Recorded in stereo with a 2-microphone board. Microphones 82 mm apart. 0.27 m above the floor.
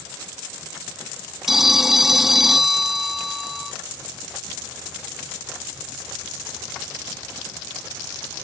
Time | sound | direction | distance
1.5 | a phone ringing | 5° right (ahead or behind) | ?